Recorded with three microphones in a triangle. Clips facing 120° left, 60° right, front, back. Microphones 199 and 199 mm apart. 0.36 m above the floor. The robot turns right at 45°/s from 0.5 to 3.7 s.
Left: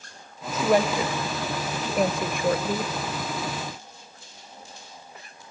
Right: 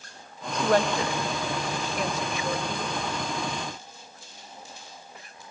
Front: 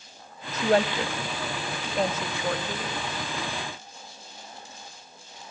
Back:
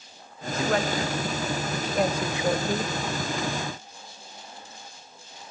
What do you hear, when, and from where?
0.5 s a woman speaking: 35° left, 1.2 m; by 2.9 s 140° left, 1.2 m